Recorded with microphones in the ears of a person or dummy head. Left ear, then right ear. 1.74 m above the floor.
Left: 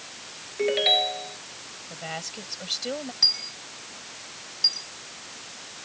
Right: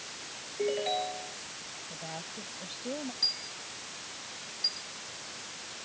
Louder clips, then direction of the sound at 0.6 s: Left 9 dB; 55° left (ahead or behind).